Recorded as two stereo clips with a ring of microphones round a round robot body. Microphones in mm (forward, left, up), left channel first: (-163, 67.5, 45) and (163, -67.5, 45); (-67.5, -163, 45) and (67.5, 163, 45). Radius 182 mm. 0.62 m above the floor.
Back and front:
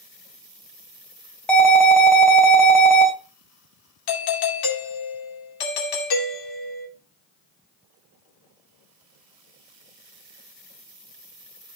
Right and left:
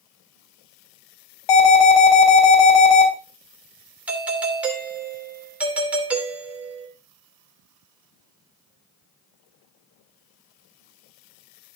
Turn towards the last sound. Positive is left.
turn(degrees=155)